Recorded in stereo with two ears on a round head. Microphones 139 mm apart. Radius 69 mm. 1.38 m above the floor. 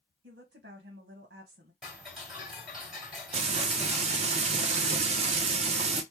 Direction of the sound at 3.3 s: 45° right (ahead or behind).